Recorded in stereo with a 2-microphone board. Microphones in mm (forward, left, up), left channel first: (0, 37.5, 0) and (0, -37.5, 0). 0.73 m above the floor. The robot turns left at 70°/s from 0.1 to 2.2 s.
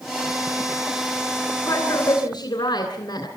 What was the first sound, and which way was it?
A woman speaking, 145° left.